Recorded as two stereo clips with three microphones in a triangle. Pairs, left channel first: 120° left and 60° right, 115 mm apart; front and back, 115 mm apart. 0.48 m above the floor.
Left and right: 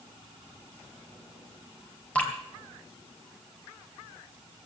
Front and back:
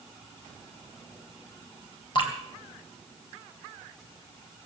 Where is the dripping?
40° left, 2.5 m.